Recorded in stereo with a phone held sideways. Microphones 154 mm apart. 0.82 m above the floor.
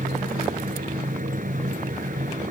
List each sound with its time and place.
0.0 s a fan: 60° right (ahead or behind)